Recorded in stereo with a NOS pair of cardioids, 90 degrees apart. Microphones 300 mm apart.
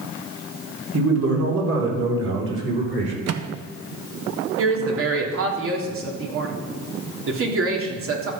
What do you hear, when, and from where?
0.9 s a man speaking: 55° right, 4.5 m; by 3.1 s 35° right, 5.5 m
3.3 s a microwave: 60° right, 1.0 m
4.6 s a woman speaking: 45° right, 3 m